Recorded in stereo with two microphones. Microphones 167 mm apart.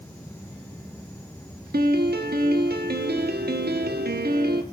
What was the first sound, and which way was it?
A piano, 70° right (ahead or behind).